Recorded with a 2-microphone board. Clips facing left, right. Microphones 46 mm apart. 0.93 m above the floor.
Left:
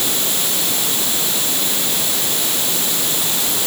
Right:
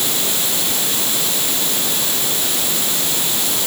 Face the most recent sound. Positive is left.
No sound to turn to.